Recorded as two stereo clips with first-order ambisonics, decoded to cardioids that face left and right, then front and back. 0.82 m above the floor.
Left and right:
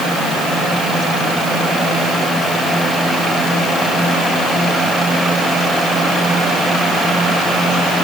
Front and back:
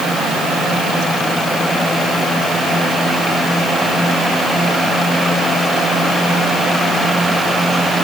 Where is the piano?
I don't hear a piano.